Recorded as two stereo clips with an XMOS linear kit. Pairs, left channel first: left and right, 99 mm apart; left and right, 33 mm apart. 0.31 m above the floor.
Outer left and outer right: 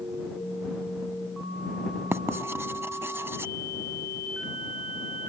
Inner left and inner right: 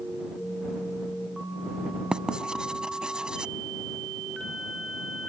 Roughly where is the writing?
Right.